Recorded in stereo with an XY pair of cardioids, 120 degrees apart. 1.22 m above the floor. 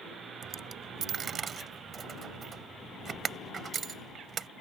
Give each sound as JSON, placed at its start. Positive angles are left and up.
{"t": 0.4, "sound": "a dropped coin", "azimuth_deg": -40}